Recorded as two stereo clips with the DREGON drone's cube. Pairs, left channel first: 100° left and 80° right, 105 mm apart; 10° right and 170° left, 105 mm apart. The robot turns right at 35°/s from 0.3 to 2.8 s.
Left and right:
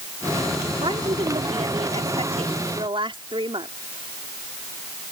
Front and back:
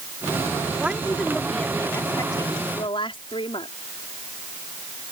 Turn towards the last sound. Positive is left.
turn(degrees=-45)